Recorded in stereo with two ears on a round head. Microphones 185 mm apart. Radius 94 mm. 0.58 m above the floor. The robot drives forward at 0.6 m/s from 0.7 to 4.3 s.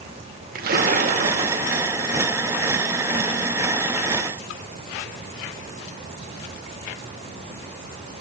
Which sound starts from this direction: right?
A splash, at 0.6 s.